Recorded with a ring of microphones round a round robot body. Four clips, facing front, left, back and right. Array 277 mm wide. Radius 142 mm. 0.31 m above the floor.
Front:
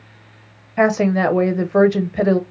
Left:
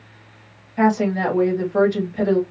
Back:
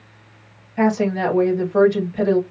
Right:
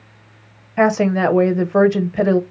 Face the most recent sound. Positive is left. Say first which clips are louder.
# right 3 dB, front 3 dB
turn(degrees=-50)